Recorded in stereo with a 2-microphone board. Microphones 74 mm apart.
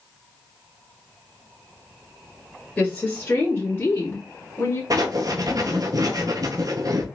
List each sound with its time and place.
2.8 s a woman speaking: 25° left (ahead or behind), 1.6 m; by 4.8 s 35° left (ahead or behind), 2.5 m
4.9 s writing: 55° right (ahead or behind), 0.7 m